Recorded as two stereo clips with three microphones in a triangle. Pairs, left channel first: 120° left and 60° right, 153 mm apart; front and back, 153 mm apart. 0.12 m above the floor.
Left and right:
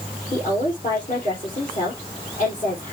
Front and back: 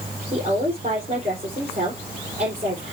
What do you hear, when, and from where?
0.3 s a woman speaking: 145° left, 3.5 m